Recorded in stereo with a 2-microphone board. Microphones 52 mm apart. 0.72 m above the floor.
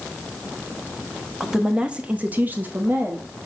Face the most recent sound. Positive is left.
turn(degrees=-30)  # may be behind; listen again after turning